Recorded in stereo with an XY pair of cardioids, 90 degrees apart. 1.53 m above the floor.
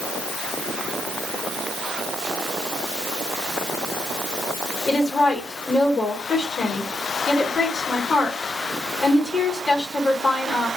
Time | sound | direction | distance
4.9 | a woman speaking | 45° left | 1.4 m